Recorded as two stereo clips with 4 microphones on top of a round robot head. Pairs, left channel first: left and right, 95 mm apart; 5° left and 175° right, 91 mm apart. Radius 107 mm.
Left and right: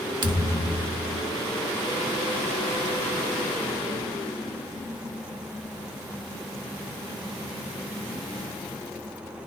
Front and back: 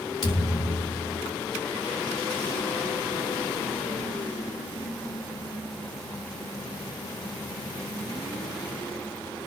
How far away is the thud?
About 3.5 m.